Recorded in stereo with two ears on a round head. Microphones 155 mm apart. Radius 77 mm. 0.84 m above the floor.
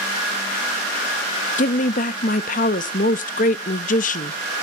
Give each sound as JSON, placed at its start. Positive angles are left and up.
{"t": 1.6, "sound": "a woman speaking", "side_deg": 45, "distance_m": 0.7}